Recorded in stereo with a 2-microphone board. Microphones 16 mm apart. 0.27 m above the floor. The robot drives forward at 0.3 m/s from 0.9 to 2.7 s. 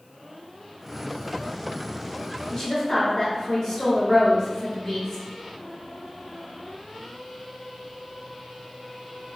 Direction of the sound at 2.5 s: 25° left (ahead or behind).